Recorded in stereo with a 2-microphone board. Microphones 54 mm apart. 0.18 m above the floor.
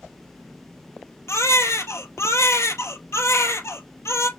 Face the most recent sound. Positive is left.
turn(degrees=70)  # may be behind; listen again after turning